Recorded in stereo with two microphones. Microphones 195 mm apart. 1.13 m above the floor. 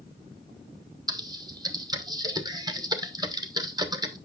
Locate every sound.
1.1 s typing on a keyboard: 20° right (ahead or behind), 0.7 m